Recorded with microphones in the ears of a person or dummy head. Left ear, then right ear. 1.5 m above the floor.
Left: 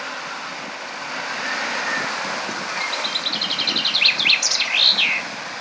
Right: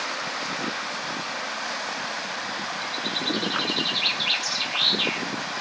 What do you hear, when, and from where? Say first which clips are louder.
2.8 s a bird: left 5 dB; 65° left (ahead or behind), 0.7 m